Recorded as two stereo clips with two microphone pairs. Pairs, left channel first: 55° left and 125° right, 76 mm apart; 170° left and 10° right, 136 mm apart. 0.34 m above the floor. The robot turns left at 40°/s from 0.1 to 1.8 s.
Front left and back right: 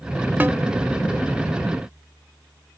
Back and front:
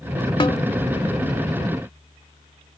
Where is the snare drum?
175° right, 1.0 m; by 0.6 s straight behind, 1.0 m.